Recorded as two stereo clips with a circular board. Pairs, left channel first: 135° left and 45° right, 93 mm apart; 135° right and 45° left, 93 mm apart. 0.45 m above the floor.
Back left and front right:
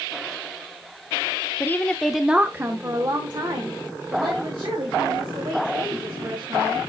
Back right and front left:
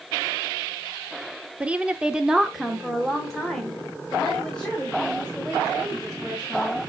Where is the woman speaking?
105° left, 0.8 m; by 6.8 s 55° right, 3 m.